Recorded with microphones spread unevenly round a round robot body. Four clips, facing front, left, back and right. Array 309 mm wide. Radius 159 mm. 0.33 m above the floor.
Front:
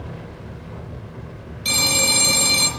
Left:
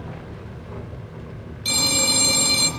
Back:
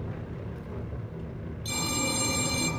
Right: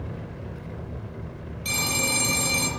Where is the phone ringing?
25° left, 6 m.